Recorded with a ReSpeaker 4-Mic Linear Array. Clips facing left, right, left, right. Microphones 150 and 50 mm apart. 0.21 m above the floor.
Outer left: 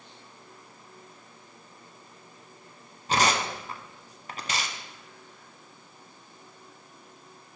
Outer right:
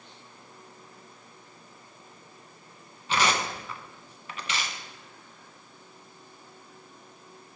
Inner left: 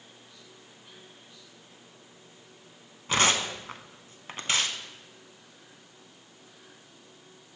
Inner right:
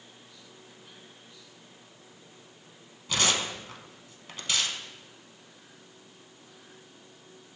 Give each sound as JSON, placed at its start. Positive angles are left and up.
{"t": 3.1, "sound": "tearing paper", "side_deg": 40, "distance_m": 0.5}